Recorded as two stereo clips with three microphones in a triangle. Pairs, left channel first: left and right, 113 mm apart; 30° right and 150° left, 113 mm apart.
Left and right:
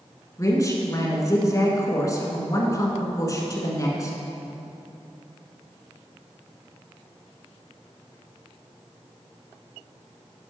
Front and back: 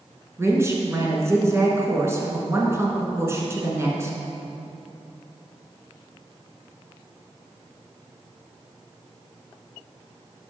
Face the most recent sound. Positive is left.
turn(degrees=110)